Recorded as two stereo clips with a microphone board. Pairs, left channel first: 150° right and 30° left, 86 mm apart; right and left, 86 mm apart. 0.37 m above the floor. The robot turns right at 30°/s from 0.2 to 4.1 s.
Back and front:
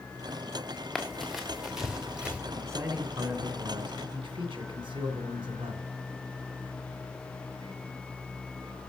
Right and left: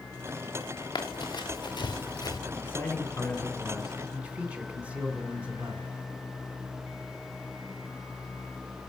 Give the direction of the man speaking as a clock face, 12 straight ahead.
1 o'clock.